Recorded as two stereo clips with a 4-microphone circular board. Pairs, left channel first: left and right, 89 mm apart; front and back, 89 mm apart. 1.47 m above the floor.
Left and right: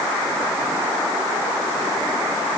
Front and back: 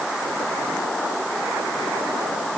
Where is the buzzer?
I don't hear a buzzer.